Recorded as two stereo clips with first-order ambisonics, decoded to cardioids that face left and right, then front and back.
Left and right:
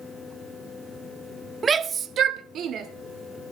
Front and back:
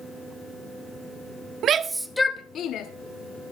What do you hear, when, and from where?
1.6 s a shout: 155° right, 0.7 m; by 2.9 s 40° right, 1.0 m